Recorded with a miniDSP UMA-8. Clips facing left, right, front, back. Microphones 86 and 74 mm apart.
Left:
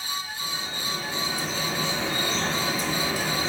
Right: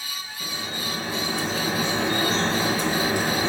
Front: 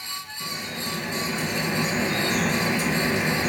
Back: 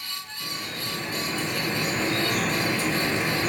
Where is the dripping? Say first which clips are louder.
Right 1 dB, front 2 dB; 70° right, 2.5 m.